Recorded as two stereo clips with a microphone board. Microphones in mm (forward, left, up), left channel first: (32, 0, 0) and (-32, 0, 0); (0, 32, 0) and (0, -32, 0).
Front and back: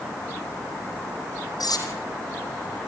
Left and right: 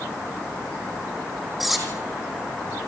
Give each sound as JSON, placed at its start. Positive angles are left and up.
{"t": 1.6, "sound": "cutlery clinking", "azimuth_deg": -5, "distance_m": 3.5}